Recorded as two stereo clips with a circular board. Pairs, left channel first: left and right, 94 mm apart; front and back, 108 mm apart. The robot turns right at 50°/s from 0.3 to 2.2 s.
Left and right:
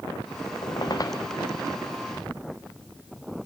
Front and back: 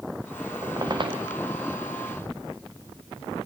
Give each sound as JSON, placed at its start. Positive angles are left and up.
{"t": 0.6, "sound": "a squeak", "azimuth_deg": 120, "distance_m": 2.0}